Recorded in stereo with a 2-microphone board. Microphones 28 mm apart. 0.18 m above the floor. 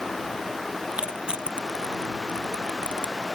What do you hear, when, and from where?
0.9 s crushing: 40° right (ahead or behind)